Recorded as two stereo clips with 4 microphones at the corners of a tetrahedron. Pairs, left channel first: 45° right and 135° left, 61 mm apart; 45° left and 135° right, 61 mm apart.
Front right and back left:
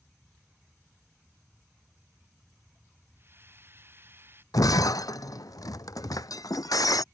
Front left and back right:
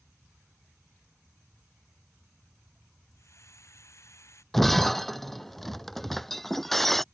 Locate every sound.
3.2 s a hiss: 80° left
4.5 s breaking glass: 40° right